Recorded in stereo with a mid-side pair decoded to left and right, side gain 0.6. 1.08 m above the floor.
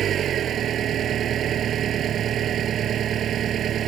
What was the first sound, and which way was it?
An engine running, 50° right.